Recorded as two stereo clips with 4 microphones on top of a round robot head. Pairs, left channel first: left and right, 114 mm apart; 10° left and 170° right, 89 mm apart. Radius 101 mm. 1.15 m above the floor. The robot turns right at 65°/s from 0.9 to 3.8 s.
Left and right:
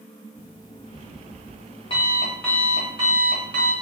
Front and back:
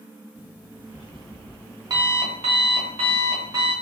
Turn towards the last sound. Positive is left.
turn(degrees=-95)